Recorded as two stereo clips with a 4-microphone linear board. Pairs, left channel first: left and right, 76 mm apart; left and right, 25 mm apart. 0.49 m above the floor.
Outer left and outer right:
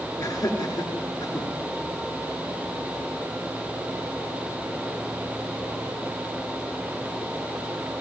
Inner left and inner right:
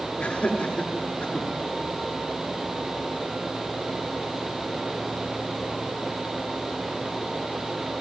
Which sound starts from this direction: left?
Laughter, at 0.2 s.